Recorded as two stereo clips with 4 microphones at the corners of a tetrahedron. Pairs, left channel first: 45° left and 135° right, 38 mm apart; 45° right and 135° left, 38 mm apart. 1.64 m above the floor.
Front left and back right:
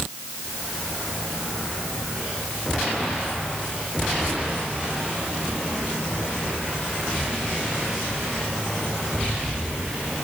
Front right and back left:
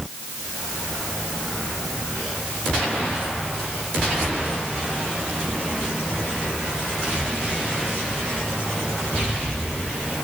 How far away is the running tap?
I don't hear a running tap.